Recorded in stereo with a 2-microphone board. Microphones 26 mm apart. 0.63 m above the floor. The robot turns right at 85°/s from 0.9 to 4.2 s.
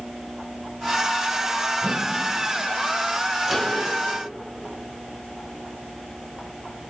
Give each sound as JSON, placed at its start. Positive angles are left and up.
{"t": 1.8, "sound": "a whoosh", "azimuth_deg": -95, "distance_m": 0.8}
{"t": 3.4, "sound": "a microwave", "side_deg": -20, "distance_m": 2.5}